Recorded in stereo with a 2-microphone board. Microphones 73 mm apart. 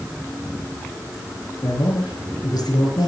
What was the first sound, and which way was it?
A man speaking, 70° left (ahead or behind).